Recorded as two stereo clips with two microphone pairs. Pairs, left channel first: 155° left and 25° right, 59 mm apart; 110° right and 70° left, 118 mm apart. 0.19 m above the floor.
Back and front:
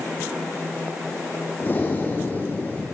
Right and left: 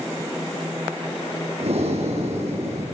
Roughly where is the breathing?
Left.